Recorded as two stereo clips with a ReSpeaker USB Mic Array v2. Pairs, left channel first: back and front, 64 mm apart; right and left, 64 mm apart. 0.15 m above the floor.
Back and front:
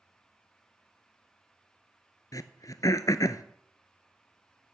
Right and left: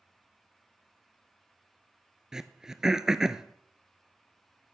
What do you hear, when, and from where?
2.3 s throat clearing: 170° left, 0.6 m